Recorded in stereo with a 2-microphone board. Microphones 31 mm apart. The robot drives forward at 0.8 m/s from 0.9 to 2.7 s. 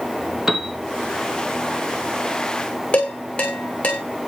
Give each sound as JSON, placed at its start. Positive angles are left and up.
{"t": 0.5, "sound": "a piano", "side_deg": -15, "distance_m": 1.2}
{"t": 2.9, "sound": "dishes clattering", "side_deg": 30, "distance_m": 7.5}